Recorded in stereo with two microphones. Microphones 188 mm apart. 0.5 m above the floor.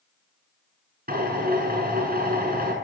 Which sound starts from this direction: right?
A drill, at 1.1 s.